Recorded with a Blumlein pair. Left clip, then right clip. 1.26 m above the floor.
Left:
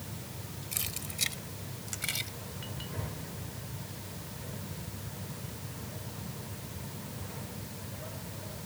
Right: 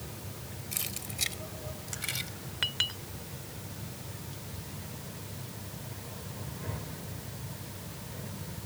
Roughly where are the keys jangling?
Ahead.